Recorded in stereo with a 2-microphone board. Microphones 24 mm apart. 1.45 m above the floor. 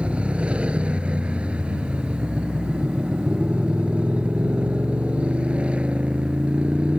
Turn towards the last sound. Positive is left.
turn(degrees=-45)  # may be behind; listen again after turning